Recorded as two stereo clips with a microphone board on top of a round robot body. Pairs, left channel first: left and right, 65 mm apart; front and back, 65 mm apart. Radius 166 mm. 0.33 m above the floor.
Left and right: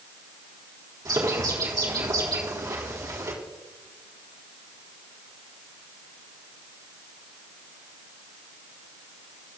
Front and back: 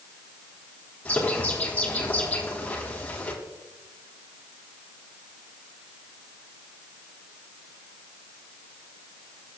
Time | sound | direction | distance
1.1 | a bird | 70° right | 3.5 m